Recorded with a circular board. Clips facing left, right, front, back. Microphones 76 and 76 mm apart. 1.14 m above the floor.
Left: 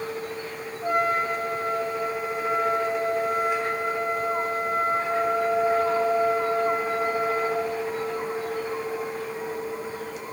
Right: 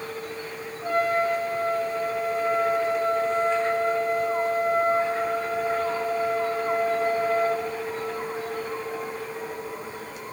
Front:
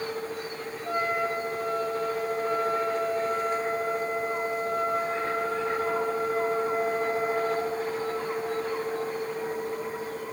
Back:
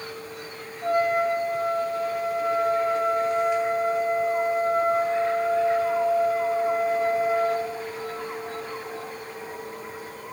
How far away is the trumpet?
About 9 m.